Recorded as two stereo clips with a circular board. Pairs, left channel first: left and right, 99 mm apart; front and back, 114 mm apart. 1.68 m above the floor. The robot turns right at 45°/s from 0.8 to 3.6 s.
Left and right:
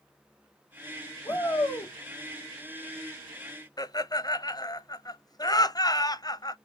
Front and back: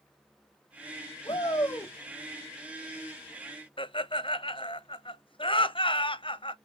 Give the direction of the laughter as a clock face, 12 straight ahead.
11 o'clock.